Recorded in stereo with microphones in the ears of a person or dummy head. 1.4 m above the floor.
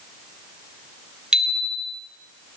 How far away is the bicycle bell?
About 2.5 m.